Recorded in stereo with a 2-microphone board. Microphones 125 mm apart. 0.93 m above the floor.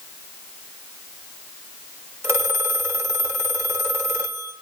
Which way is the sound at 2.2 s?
20° right (ahead or behind).